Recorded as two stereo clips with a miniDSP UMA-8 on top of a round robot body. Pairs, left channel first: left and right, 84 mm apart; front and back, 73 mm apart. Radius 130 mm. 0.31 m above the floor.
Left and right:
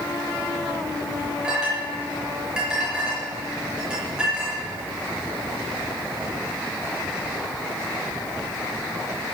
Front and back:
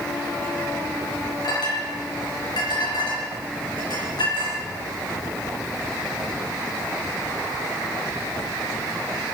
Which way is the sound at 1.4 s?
10° right.